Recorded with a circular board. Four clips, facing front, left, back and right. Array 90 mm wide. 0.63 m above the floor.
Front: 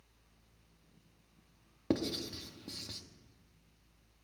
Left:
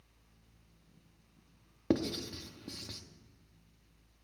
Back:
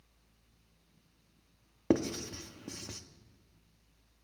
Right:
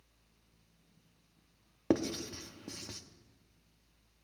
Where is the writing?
150° right, 0.7 m.